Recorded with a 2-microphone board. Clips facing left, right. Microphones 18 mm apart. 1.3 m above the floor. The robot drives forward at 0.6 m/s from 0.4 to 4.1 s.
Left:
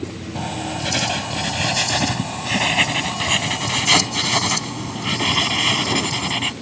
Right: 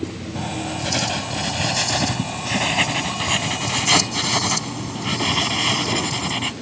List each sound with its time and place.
0.3 s writing: 10° left (ahead or behind); by 6.5 s 5° left (ahead or behind)